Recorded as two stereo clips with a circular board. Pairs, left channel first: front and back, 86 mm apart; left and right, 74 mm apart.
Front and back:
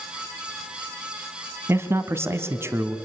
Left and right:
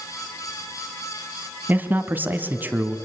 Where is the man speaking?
140° right, 1.3 m.